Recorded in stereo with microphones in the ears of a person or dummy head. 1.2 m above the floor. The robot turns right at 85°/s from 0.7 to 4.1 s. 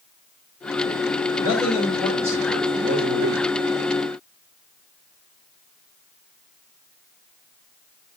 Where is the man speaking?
95° left, 3 m; by 3.4 s 90° right, 3 m.